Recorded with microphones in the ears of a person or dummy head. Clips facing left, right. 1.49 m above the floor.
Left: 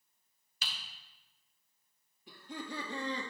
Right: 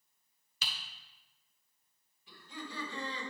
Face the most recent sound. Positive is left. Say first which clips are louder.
# left 3 dB
turn(degrees=40)  # may be behind; listen again after turning